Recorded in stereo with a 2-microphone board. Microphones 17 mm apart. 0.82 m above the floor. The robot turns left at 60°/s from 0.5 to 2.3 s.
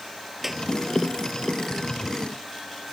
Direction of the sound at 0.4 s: 15° right (ahead or behind).